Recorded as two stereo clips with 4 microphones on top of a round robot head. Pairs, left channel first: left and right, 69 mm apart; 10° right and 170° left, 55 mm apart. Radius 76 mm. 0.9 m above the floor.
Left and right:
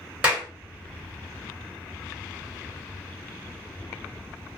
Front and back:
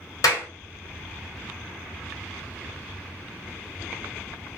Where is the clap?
15° right, 1.6 m.